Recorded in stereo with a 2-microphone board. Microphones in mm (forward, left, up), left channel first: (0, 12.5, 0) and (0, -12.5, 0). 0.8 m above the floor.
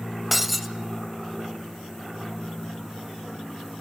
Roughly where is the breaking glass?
Centre.